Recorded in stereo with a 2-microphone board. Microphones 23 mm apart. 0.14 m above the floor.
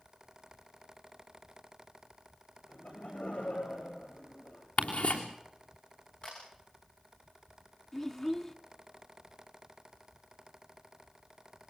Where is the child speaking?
15° left (ahead or behind), 0.7 m.